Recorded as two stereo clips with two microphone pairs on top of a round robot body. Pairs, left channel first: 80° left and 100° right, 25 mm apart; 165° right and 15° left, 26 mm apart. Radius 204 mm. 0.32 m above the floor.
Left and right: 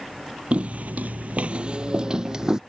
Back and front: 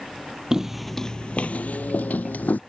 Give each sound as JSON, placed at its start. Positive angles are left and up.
{"t": 0.5, "sound": "footsteps", "azimuth_deg": -55}